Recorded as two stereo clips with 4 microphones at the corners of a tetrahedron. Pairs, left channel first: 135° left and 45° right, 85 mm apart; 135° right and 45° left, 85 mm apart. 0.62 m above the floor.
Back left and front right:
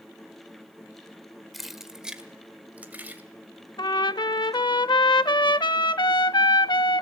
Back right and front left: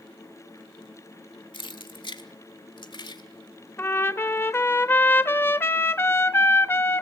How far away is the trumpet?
About 0.6 m.